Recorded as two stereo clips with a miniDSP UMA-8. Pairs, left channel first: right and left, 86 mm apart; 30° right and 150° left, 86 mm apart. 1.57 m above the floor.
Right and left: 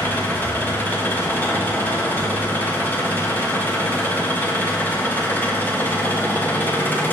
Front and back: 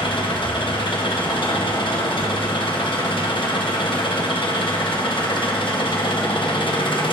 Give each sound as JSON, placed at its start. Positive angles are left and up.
{"t": 0.0, "sound": "an engine running", "azimuth_deg": -20, "distance_m": 1.2}